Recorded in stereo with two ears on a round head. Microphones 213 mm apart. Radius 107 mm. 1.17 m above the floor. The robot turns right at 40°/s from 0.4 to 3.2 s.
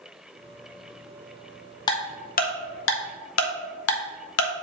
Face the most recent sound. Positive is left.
turn(degrees=65)  # may be behind; listen again after turning